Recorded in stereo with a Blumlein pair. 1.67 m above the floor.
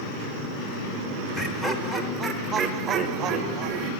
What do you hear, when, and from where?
1.4 s laughter: 10° left, 1.6 m; by 3.9 s 40° right, 2 m